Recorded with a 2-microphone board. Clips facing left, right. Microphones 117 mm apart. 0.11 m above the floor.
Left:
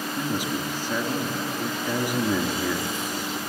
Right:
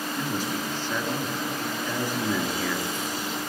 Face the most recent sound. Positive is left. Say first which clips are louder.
# left 2 dB
turn(degrees=15)  # may be behind; listen again after turning